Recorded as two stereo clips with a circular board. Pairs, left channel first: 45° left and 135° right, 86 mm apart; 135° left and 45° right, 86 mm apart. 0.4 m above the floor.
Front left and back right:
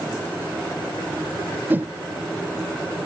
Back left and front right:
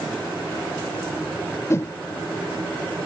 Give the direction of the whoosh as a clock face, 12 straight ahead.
6 o'clock.